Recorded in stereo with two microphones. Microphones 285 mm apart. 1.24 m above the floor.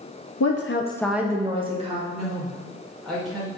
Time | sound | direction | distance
0.4 | a woman speaking | 75° left (ahead or behind) | 0.6 m
2.1 | a woman speaking | centre (ahead or behind) | 1.6 m